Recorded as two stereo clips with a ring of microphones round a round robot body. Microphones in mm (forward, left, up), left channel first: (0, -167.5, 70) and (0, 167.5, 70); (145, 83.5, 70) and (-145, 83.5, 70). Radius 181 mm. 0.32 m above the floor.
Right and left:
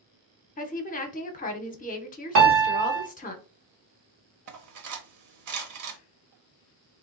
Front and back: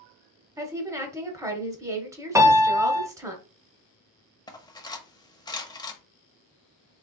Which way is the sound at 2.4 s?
105° left.